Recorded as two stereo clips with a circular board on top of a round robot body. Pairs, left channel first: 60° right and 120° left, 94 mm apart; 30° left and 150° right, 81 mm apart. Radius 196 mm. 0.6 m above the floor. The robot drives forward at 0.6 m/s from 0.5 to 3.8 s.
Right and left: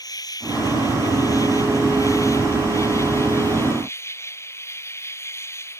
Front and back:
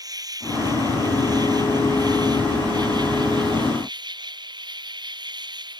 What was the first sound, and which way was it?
An insect, 110° right.